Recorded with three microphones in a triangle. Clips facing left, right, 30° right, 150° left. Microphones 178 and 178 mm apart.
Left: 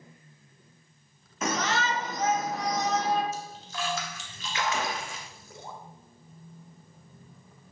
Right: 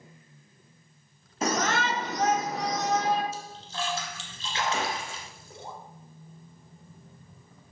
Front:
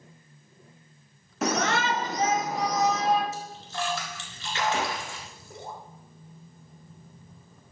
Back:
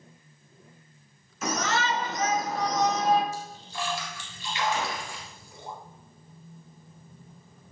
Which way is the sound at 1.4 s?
35° right.